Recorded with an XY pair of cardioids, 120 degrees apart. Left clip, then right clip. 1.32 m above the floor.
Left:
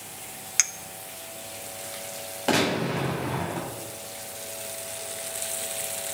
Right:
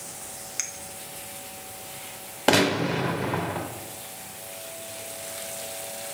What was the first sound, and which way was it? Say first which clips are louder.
A clink: left 8 dB; 50° left.